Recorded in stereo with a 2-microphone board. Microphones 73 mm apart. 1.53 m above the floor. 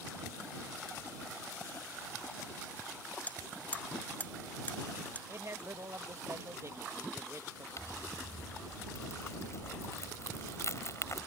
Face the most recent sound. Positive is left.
turn(degrees=45)  # may be behind; listen again after turning